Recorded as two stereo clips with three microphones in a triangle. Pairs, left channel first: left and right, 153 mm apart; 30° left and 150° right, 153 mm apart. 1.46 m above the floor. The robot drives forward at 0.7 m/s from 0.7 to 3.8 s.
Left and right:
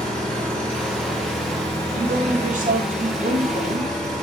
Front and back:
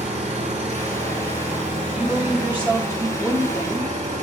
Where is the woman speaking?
65° right, 3.5 m; by 4.2 s 90° right, 3.5 m.